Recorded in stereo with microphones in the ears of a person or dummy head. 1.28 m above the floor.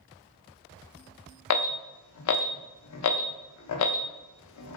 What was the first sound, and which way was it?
An alarm, 85° left.